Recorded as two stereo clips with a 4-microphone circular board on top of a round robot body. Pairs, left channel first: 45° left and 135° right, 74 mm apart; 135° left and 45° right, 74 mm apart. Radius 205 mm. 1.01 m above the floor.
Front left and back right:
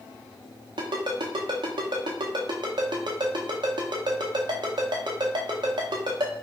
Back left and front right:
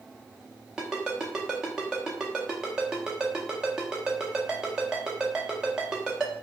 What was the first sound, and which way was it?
A ringtone, 125° right.